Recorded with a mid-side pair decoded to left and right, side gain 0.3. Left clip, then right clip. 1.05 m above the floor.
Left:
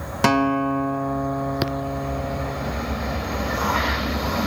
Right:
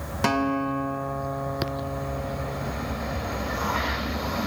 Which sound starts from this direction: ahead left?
A guitar, at 0.2 s.